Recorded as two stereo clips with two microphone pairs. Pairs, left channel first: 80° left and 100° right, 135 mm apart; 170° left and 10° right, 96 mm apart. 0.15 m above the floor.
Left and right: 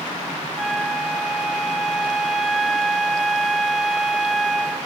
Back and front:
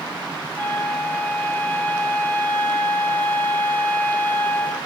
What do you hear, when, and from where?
0.6 s a flute: 170° left, 1.7 m